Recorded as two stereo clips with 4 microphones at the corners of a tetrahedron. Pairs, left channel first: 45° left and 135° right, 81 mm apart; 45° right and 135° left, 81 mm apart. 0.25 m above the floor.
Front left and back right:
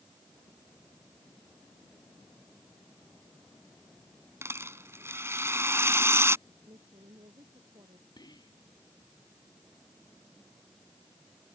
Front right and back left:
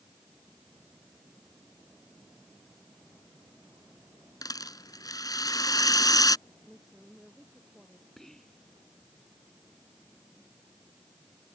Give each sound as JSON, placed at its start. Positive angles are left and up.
{"t": 4.4, "sound": "a rattle", "azimuth_deg": -80}
{"t": 6.5, "sound": "a woman speaking", "azimuth_deg": -135}
{"t": 8.2, "sound": "whispering", "azimuth_deg": 40}